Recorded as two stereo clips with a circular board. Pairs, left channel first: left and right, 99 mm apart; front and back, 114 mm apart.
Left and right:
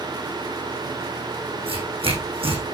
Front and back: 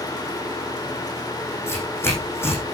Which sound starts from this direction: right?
Tearing paper, at 1.7 s.